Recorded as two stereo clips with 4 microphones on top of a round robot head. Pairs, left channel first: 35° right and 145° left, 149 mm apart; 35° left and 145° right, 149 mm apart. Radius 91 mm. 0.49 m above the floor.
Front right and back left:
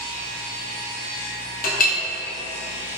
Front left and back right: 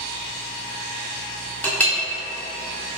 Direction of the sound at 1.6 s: 40° right.